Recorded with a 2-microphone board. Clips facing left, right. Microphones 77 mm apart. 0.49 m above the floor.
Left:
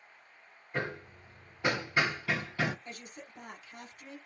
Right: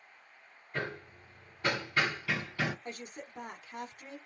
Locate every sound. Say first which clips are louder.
0.7 s hammering: left 2 dB; 15° left (ahead or behind), 1.1 m
2.9 s a woman speaking: right 4 dB; 40° right (ahead or behind), 1.3 m